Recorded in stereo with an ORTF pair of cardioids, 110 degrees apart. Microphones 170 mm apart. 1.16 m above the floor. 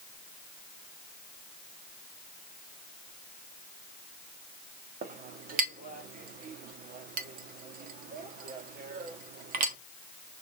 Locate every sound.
5.0 s a clink: 55° right, 1.7 m